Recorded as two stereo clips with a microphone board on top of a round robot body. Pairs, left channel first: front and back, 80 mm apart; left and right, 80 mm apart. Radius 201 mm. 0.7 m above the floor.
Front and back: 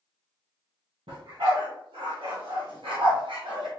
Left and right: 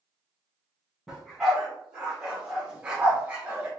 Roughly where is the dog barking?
Behind.